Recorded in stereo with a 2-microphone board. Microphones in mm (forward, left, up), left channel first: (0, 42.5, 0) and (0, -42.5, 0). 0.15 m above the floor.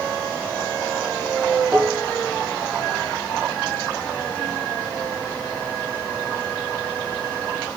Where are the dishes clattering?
10° right (ahead or behind), 3.5 m.